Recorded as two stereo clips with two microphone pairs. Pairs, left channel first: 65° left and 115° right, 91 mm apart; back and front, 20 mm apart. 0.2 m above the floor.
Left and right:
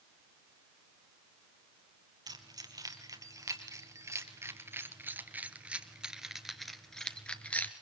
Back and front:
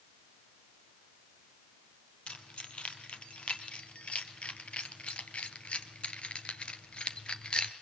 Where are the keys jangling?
155° right, 3.5 m; by 7.7 s 135° left, 2 m.